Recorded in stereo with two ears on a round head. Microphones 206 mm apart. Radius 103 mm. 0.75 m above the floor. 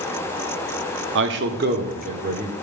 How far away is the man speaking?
About 0.9 m.